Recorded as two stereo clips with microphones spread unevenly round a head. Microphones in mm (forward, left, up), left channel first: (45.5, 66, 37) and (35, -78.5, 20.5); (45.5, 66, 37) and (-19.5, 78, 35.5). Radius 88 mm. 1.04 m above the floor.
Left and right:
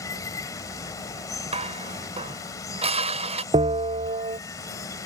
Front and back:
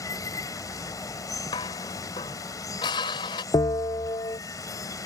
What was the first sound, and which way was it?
Running water, 20° left.